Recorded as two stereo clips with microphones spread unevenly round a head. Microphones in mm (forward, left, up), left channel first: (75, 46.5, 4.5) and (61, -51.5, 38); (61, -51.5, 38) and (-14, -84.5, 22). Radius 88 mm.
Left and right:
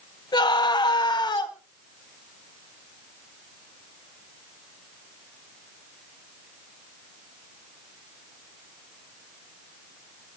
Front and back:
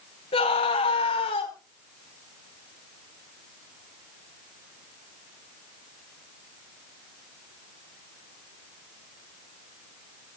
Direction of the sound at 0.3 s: 40° left.